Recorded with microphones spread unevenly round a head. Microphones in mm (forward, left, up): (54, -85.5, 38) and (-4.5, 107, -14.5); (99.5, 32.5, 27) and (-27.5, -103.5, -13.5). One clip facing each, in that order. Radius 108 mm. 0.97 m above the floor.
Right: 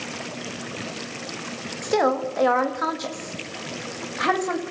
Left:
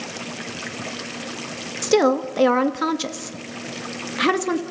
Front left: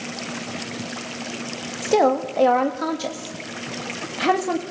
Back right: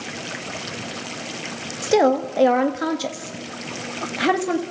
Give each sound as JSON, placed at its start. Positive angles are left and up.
{"t": 1.8, "sound": "a woman speaking", "azimuth_deg": 150, "distance_m": 1.5}